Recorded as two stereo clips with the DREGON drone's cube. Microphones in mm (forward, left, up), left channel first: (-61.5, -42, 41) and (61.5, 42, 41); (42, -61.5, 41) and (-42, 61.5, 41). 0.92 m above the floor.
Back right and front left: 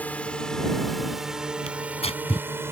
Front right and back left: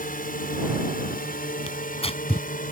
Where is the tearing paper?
100° right.